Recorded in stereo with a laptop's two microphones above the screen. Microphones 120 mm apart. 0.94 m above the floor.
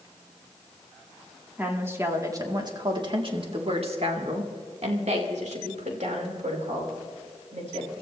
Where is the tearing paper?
No tearing paper in this recording.